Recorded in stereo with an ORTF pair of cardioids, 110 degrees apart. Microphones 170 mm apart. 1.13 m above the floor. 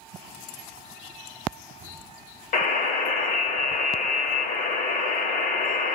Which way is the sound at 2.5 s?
55° left.